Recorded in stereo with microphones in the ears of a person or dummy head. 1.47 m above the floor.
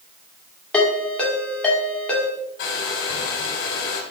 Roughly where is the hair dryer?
Left.